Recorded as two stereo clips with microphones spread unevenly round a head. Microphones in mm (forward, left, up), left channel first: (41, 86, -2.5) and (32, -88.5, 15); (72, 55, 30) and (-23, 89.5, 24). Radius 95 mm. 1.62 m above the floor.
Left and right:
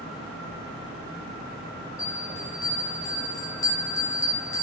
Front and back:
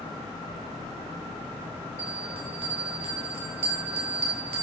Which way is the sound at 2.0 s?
165° left.